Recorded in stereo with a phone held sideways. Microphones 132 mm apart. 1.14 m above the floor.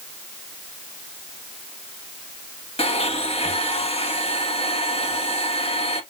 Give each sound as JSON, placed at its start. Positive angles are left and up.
{"t": 2.8, "sound": "a blender", "side_deg": 50, "distance_m": 1.2}